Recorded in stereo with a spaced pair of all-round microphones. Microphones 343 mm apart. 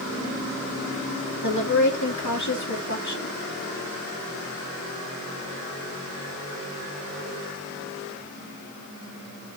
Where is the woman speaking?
55° left (ahead or behind), 2.5 m.